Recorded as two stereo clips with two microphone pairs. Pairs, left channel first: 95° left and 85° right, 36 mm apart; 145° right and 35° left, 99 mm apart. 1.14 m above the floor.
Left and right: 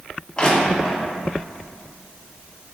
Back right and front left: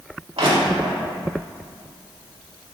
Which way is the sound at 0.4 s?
35° left.